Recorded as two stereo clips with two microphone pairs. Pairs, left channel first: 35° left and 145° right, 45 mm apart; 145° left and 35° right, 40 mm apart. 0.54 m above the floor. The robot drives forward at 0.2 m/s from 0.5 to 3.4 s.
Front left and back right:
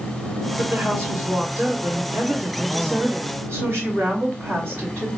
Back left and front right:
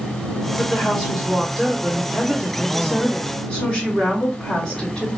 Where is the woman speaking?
130° right, 1.9 m; by 5.1 s 140° right, 2.5 m.